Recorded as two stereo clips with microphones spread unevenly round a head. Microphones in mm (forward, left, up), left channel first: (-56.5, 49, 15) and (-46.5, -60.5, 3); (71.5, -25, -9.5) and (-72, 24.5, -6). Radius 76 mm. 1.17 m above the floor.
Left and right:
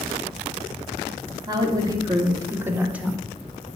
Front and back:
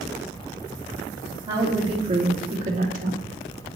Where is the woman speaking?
135° right, 3 m; by 3.2 s 170° right, 1.6 m.